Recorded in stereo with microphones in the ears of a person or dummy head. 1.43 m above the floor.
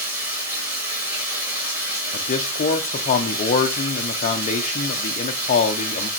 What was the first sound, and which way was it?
Running water, 15° right (ahead or behind).